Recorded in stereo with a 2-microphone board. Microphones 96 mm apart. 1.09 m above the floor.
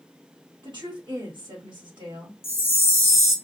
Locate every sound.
0.6 s a woman speaking: 55° right (ahead or behind), 1.4 m
2.4 s a chime: 25° left (ahead or behind), 0.7 m